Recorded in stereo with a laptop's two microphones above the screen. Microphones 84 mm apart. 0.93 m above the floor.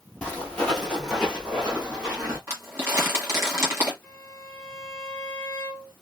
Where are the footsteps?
15° left (ahead or behind), 1.6 m; by 2.4 s 25° right (ahead or behind), 1.8 m.